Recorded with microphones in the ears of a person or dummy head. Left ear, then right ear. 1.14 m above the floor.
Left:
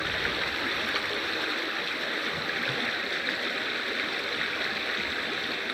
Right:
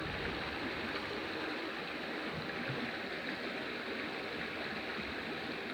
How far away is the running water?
About 1.4 m.